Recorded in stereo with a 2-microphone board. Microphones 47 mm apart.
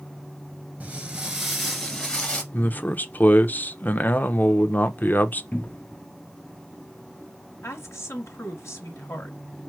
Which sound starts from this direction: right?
Footsteps, at 0.8 s.